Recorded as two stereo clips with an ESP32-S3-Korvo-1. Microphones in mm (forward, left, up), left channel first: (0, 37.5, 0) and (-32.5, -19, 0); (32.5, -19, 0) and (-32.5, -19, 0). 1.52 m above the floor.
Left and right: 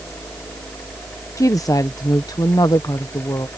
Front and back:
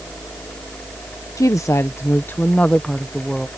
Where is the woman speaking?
30° left; by 3.5 s 90° left.